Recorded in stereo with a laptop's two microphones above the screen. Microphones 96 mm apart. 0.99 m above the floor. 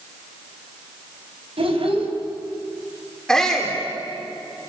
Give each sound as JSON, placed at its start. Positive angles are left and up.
{"t": 1.6, "sound": "a child speaking", "side_deg": -75, "distance_m": 5.5}
{"t": 3.3, "sound": "a shout", "side_deg": 5, "distance_m": 3.5}